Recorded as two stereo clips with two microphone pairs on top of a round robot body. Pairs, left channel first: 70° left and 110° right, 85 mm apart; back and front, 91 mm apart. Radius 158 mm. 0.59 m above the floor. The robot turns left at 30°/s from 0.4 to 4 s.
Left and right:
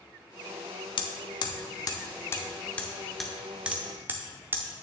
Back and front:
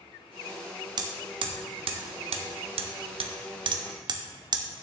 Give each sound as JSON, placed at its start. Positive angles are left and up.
{"t": 1.0, "sound": "hammering", "azimuth_deg": 50, "distance_m": 0.6}